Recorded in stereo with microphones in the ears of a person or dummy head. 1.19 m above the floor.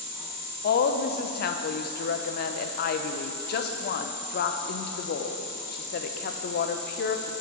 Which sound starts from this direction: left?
A woman speaking, at 0.6 s.